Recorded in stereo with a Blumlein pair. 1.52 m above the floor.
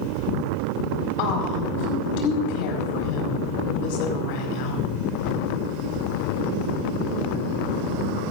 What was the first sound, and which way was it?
A woman speaking, 45° left.